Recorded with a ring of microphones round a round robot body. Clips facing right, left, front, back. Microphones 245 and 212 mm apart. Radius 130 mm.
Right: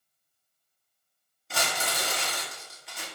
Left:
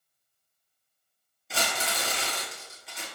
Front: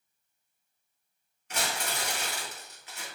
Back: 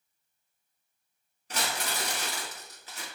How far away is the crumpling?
About 1.4 m.